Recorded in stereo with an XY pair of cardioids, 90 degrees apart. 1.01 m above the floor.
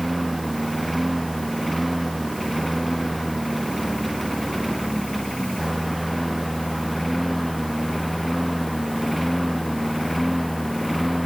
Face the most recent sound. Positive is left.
turn(degrees=0)